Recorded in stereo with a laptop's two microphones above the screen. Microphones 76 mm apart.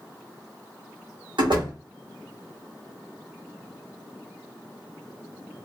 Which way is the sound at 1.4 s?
75° right (ahead or behind).